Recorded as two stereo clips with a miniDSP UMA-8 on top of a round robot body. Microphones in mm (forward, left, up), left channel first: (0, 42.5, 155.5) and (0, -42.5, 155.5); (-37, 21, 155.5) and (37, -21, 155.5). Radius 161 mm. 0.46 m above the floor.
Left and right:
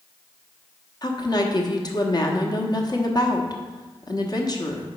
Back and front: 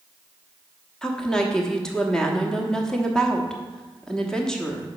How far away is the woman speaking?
About 1.2 m.